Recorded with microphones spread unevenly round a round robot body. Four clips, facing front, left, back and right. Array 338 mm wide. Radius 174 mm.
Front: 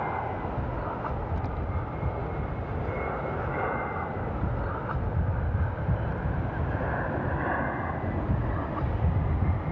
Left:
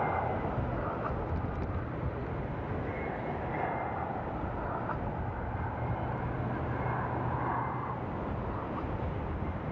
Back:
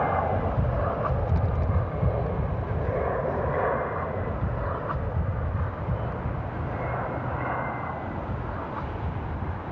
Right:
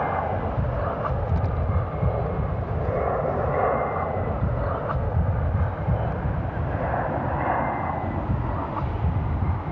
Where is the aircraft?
145° right; by 9.7 s 55° right.